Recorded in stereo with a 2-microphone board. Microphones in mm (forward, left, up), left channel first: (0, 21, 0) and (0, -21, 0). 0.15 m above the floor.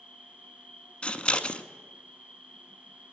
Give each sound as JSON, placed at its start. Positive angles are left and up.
{"t": 0.0, "sound": "an insect", "side_deg": 20, "distance_m": 1.3}
{"t": 1.0, "sound": "scissors", "side_deg": 25, "distance_m": 0.6}